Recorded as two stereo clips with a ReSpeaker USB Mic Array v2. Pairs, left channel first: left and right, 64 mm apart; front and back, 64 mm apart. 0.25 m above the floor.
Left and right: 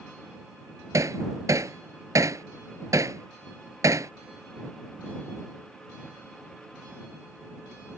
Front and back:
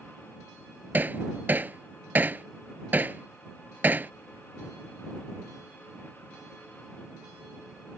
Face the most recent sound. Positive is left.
turn(degrees=-120)